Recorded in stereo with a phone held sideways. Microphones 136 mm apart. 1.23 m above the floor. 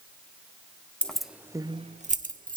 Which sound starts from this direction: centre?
Keys jangling, at 1.0 s.